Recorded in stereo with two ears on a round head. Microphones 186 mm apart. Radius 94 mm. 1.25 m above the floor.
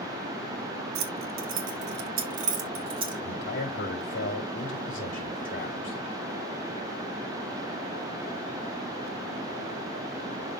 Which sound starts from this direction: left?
A man speaking, at 3.2 s.